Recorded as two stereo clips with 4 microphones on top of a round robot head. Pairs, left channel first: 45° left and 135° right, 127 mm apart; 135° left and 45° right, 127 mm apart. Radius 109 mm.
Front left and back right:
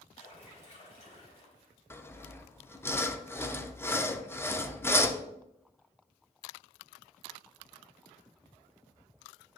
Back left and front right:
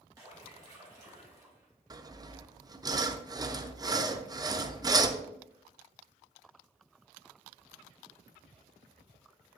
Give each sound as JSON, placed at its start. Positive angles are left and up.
{"t": 0.2, "sound": "a splash", "azimuth_deg": 15, "distance_m": 3.0}
{"t": 1.9, "sound": "sawing", "azimuth_deg": -15, "distance_m": 0.7}